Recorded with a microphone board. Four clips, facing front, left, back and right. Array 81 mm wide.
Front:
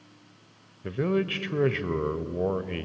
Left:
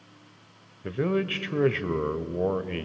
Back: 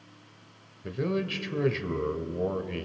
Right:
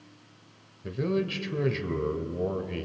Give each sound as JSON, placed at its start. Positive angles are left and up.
{"t": 0.8, "sound": "a man speaking", "azimuth_deg": 60, "distance_m": 1.1}